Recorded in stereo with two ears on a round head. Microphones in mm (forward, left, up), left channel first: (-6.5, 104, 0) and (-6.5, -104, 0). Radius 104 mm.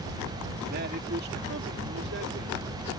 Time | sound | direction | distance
0.7 | a man speaking | 40° right (ahead or behind) | ?